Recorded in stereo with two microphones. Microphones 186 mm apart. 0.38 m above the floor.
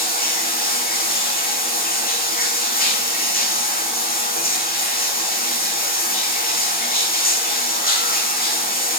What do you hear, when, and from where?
0.0 s running water: 55° left (ahead or behind), 3 m